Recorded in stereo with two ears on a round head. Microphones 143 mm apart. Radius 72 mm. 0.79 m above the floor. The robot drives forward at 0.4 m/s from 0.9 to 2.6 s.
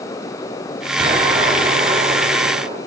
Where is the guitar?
No guitar in this recording.